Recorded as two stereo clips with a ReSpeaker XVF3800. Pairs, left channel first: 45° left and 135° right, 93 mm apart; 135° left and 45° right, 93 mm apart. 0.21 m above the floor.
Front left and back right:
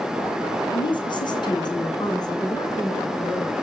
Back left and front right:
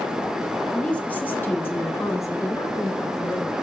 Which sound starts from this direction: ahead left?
A woman speaking, at 0.7 s.